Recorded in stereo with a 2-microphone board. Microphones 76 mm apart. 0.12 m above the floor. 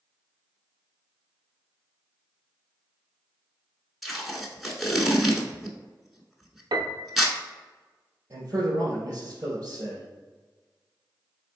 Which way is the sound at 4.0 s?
Centre (ahead or behind).